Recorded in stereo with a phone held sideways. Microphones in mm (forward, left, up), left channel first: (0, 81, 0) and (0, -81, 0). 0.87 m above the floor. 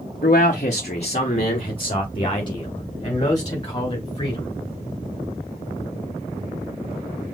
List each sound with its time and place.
0.2 s a man speaking: 55° left (ahead or behind), 0.8 m; by 4.5 s 25° left (ahead or behind), 3.5 m